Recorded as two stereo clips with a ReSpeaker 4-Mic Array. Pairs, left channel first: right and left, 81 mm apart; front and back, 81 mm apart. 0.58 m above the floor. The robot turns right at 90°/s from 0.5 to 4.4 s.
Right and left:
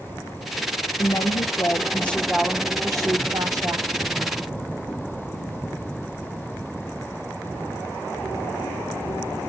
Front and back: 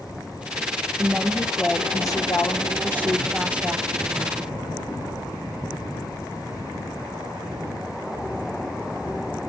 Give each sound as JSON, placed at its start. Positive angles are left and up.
{"t": 1.0, "sound": "a woman speaking", "azimuth_deg": -120, "distance_m": 1.3}